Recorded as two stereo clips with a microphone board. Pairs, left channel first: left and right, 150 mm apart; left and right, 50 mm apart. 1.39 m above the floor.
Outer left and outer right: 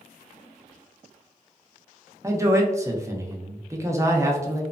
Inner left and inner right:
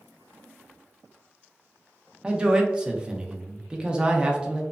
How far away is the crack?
I don't hear a crack.